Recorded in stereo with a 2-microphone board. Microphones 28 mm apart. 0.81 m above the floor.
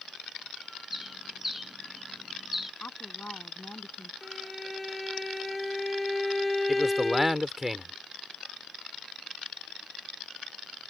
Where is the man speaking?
5° right (ahead or behind).